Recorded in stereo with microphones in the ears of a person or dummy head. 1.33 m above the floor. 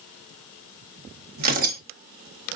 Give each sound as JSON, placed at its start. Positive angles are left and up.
{"t": 1.4, "sound": "tearing paper", "side_deg": -45, "distance_m": 1.2}